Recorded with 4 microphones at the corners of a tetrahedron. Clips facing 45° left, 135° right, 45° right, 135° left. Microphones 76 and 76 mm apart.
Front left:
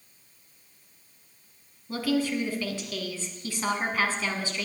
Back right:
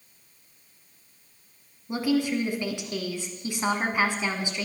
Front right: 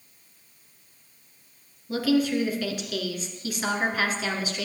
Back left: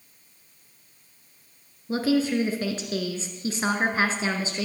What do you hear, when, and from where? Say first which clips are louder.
1.9 s a woman speaking: back right 2 dB, even; 165° left, 1.6 m